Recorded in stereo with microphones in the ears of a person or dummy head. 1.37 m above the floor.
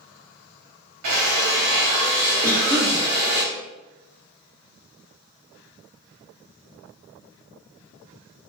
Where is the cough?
10° right (ahead or behind), 1.8 m.